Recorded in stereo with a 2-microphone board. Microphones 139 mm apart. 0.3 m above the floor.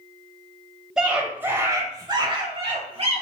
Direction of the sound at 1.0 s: 5° right (ahead or behind).